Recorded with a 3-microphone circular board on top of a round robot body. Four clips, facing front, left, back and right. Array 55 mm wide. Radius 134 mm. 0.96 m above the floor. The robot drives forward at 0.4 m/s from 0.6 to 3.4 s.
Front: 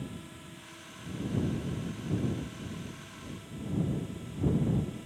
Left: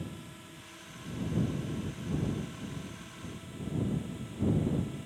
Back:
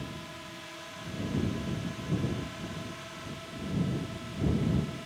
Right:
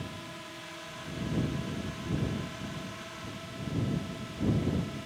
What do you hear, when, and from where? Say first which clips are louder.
0.0 s a drone: right 3 dB, back 2 dB; 135° right; by 5.1 s 140° right